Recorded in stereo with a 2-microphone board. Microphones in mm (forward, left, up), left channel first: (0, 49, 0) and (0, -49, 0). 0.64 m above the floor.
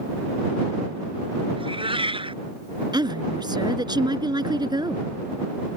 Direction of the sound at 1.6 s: 75° right (ahead or behind).